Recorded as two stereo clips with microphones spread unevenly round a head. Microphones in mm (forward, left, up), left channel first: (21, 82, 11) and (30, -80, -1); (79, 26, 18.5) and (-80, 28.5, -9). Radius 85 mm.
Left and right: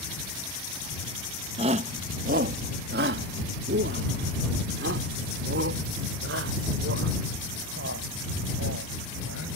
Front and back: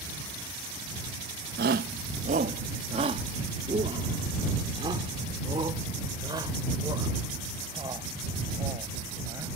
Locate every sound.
1.6 s a shout: 150° right; by 9.5 s 105° right